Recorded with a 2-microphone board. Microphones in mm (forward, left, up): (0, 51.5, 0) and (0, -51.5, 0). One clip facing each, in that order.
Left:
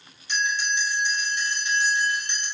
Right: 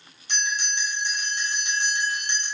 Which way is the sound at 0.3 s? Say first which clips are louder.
Left 3 dB; 65° right (ahead or behind).